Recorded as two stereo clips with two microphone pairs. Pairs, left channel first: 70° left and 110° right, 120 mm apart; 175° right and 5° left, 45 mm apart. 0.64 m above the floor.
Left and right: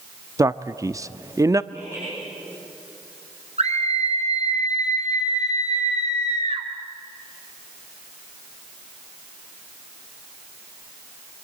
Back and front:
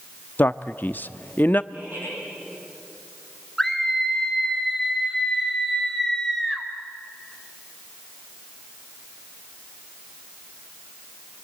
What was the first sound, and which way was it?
A man speaking, 155° right.